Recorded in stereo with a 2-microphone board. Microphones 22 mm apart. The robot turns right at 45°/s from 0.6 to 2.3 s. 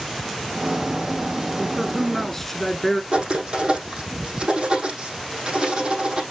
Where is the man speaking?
Straight ahead, 1.4 m; by 3.0 s 35° left, 1.4 m.